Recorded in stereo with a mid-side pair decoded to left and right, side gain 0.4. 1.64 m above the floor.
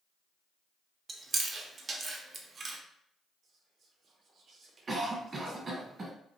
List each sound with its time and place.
1.1 s chewing: 45° right, 0.6 m
3.4 s whispering: 60° right, 0.8 m
4.9 s a cough: 40° right, 1.1 m